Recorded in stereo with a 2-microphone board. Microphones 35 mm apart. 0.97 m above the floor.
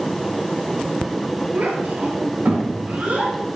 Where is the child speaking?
55° right (ahead or behind), 1.8 m; by 3.3 s 40° right (ahead or behind), 2.5 m.